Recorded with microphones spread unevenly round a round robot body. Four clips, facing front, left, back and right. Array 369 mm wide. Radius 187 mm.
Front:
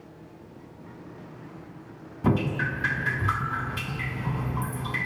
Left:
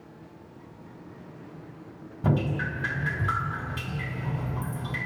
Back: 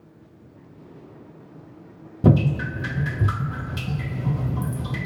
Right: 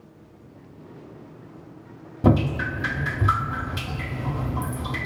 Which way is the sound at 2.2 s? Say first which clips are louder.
Right 6 dB, back 5 dB; 160° right.